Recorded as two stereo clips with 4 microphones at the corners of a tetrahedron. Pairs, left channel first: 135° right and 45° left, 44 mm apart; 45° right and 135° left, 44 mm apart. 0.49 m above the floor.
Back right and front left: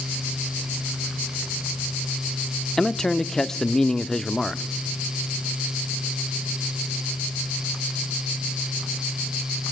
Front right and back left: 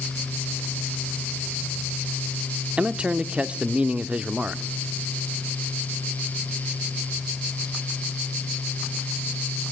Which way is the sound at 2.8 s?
160° left.